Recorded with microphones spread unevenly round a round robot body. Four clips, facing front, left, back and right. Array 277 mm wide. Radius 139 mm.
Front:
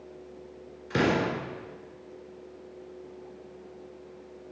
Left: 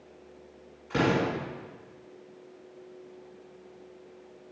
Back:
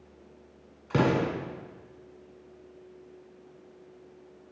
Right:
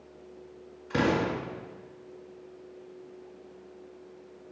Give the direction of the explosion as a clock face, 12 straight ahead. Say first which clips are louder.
Even, even; 6 o'clock.